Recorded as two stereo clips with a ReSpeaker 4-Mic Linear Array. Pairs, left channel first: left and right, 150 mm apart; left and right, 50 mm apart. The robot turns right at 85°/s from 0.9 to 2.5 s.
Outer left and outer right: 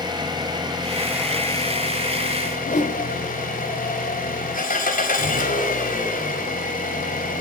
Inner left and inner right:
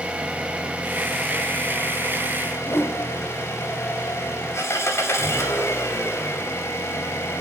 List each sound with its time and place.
0.0 s an engine running: 30° right, 4 m; by 7.4 s 105° left, 4 m
2.6 s a whoosh: 60° left (ahead or behind), 1.7 m